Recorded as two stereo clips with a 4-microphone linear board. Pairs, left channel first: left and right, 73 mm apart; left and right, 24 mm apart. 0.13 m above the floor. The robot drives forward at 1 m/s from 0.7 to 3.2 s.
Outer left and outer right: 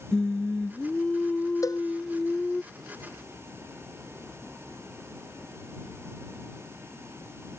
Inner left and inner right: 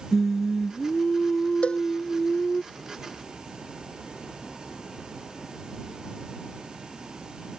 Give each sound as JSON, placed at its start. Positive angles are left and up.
{"t": 0.1, "sound": "singing", "side_deg": 10}
{"t": 1.6, "sound": "a cowbell", "side_deg": 55}